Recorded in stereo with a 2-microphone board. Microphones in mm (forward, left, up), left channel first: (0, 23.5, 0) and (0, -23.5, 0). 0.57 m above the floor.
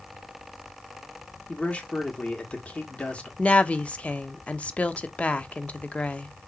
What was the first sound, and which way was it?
A man speaking, 30° left (ahead or behind).